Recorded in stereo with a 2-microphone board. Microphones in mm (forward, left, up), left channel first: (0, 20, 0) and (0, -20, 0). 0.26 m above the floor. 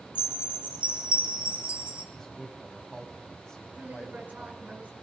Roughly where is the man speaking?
Centre.